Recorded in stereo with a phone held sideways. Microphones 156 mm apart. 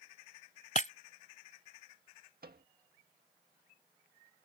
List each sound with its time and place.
0.8 s breaking glass: 55° left (ahead or behind)
2.4 s a microwave: 75° right (ahead or behind)